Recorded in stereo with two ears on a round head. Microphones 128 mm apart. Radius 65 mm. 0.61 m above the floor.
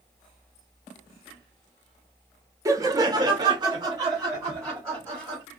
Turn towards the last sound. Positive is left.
turn(degrees=-20)  # may be behind; listen again after turning